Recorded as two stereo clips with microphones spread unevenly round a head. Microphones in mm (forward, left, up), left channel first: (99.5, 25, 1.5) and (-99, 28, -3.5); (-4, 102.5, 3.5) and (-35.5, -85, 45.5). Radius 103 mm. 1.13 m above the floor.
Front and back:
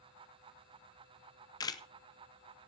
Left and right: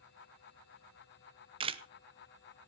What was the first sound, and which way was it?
A camera shutter, 45° right.